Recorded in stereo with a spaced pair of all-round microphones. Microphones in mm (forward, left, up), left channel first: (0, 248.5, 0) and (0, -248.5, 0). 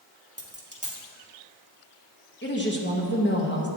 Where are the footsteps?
No footsteps in this recording.